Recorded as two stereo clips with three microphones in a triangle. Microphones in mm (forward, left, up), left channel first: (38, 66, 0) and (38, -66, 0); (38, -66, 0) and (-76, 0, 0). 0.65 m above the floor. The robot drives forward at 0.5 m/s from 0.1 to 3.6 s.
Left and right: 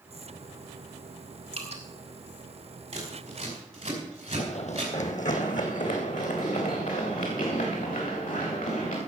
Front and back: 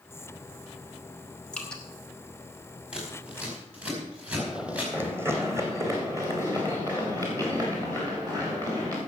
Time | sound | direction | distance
1.5 | dripping | 110° right | 2.5 m
2.9 | scissors | 130° right | 4.5 m
4.4 | running footsteps | 60° left | 1.1 m